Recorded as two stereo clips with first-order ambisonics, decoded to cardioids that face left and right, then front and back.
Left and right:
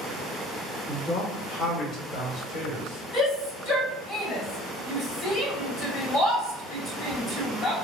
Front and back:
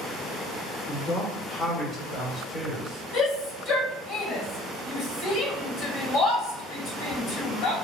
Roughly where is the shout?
Ahead left.